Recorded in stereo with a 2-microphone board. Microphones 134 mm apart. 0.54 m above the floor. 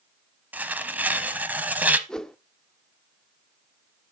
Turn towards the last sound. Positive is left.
turn(degrees=5)  # may be behind; listen again after turning